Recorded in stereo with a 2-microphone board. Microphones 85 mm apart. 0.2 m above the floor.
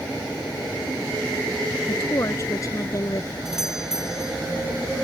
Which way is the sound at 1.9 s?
40° left (ahead or behind).